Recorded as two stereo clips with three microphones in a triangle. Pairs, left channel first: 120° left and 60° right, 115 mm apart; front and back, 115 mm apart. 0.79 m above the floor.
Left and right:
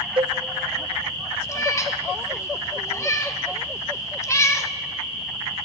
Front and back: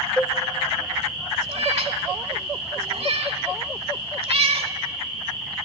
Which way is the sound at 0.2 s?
75° right.